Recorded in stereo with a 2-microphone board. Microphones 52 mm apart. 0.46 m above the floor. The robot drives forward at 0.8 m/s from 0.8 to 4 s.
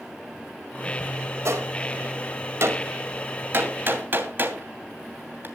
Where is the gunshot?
65° right (ahead or behind), 1.9 m; by 5.5 s 40° right (ahead or behind), 2.5 m.